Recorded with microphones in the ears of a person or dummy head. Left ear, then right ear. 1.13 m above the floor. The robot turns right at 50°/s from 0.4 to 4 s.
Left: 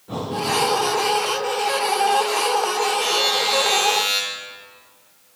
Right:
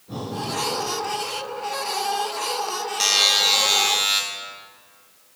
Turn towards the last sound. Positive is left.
turn(degrees=-10)